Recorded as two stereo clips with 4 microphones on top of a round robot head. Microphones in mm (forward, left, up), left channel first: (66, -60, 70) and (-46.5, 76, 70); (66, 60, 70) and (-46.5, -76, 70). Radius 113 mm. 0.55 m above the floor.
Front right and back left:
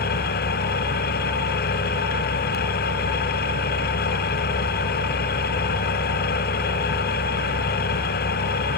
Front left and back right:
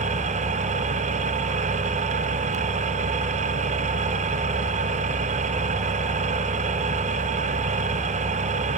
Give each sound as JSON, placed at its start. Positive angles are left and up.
{"t": 0.0, "sound": "an engine running", "azimuth_deg": -80, "distance_m": 1.5}